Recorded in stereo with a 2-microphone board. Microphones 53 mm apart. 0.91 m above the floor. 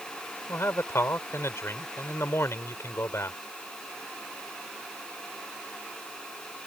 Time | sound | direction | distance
0.5 | a man speaking | 60° left (ahead or behind) | ?